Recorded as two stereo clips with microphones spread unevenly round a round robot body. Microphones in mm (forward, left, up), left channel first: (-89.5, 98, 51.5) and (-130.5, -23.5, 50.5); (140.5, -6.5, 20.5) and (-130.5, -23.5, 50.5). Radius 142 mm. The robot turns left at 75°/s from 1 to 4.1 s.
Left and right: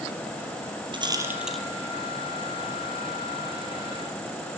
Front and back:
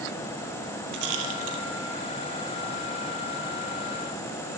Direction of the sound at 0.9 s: 160° right.